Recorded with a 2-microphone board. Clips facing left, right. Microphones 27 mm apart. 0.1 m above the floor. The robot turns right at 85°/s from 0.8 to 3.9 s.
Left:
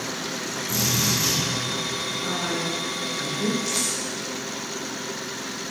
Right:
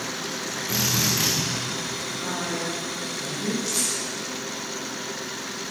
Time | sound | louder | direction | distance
0.7 | a drill | even | 140° right | 9.5 m
2.2 | a woman speaking | left 1 dB | 15° right | 9 m
3.7 | a rattle | left 1 dB | 10° left (ahead or behind) | 7 m